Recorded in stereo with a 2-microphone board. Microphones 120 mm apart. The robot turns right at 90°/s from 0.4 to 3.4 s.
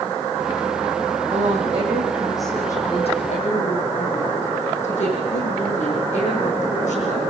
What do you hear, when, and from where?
1.3 s a woman speaking: 100° right, 8 m; by 7.2 s 90° left, 8 m